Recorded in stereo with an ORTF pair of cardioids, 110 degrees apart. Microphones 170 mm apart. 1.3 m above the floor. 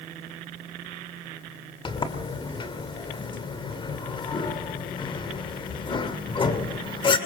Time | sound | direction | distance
1.9 | a sliding door | 30° left | 2.5 m